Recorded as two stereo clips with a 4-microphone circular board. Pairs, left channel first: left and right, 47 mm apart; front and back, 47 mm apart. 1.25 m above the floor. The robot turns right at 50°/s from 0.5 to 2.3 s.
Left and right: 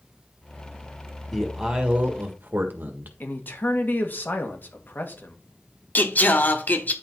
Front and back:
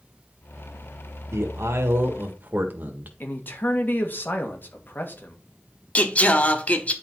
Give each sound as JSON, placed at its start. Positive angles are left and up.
{"t": 1.3, "sound": "a man speaking", "azimuth_deg": 180, "distance_m": 1.5}
{"t": 3.2, "sound": "a man speaking", "azimuth_deg": 45, "distance_m": 2.0}
{"t": 6.0, "sound": "singing", "azimuth_deg": 50, "distance_m": 1.1}